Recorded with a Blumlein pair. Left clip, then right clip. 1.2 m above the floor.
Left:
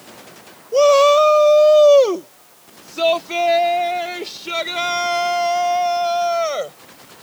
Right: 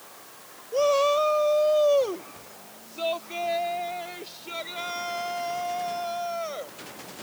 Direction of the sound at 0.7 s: 30° left.